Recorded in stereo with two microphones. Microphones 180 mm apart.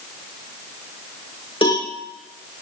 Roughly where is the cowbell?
Left.